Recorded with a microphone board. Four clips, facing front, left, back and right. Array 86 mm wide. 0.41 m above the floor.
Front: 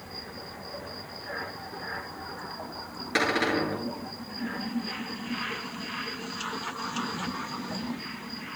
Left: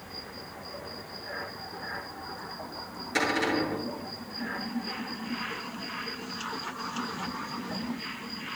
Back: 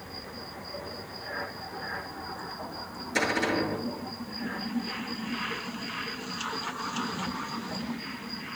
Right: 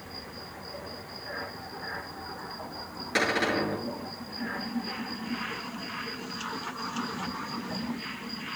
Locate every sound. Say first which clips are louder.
3.1 s a cupboard door: even, front 1 dB; 25° right, 7 m